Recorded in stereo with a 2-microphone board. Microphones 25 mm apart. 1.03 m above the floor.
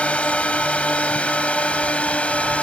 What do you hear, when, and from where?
0.0 s a drone: 65° left (ahead or behind)